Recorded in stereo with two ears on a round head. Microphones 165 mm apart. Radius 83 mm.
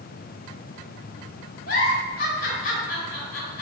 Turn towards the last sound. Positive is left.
turn(degrees=50)  # may be behind; listen again after turning